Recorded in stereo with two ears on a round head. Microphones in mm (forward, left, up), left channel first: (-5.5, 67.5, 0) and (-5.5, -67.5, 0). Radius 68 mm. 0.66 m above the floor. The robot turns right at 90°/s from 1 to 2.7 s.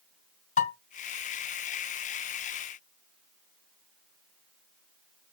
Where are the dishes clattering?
55° left (ahead or behind), 3.5 m.